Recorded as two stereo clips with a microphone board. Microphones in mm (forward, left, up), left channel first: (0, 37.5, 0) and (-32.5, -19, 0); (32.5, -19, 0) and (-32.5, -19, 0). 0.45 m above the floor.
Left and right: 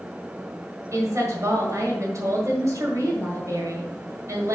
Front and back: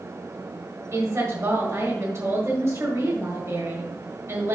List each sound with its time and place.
0.9 s a woman speaking: 145° right, 1.8 m